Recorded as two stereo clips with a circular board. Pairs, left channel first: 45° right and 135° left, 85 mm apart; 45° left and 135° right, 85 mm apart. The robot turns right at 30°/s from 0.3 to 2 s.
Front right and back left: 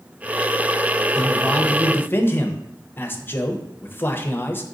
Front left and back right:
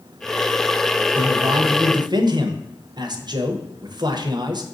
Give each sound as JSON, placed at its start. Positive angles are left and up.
{"t": 1.1, "sound": "a man speaking", "azimuth_deg": -135, "distance_m": 0.5}